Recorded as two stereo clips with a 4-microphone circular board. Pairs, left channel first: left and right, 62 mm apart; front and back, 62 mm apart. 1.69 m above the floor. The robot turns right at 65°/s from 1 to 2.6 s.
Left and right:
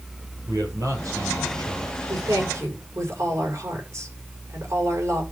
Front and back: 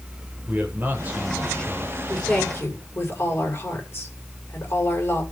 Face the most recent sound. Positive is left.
turn(degrees=-50)